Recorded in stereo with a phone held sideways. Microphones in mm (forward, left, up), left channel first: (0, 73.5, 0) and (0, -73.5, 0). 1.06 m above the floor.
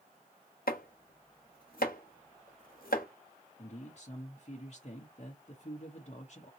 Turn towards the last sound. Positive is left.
turn(degrees=50)  # may be behind; listen again after turning